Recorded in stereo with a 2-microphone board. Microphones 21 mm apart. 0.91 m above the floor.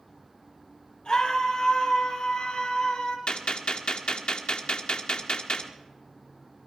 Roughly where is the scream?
Left.